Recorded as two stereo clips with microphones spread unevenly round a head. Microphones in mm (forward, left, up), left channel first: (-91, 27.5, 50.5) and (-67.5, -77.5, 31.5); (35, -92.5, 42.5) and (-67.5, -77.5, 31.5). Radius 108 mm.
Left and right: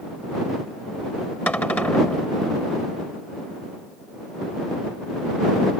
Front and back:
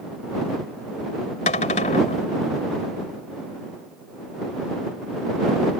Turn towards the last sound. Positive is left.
turn(degrees=25)